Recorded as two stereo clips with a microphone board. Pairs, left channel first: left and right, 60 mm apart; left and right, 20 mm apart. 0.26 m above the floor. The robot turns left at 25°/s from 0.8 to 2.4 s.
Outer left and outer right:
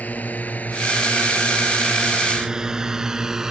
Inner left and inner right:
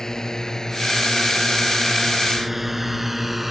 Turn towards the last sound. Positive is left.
turn(degrees=-5)  # may be behind; listen again after turning